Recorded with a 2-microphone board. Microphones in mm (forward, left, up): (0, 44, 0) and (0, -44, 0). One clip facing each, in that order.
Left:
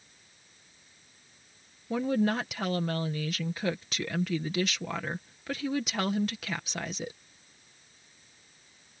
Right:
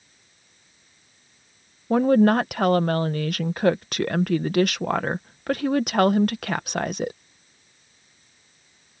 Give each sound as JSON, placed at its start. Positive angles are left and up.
{"t": 1.9, "sound": "a woman speaking", "side_deg": -55}